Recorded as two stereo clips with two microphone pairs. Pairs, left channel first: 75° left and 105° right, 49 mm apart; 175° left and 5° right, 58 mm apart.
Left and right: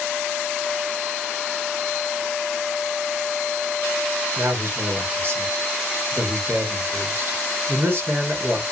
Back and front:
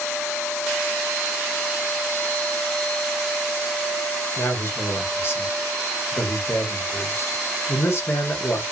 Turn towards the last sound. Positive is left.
turn(degrees=-140)